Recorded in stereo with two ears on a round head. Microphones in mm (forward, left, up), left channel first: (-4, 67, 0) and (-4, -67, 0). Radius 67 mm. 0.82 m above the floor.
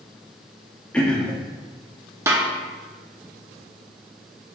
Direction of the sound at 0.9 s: 5° left (ahead or behind).